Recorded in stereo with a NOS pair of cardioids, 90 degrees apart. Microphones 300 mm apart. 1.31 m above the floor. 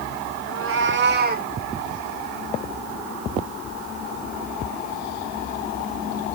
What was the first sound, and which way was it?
A cat meowing, 55° right.